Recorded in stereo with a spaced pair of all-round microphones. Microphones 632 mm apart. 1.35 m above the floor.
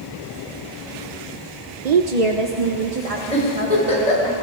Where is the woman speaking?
85° right, 0.9 m; by 4.3 s 55° right (ahead or behind), 4 m.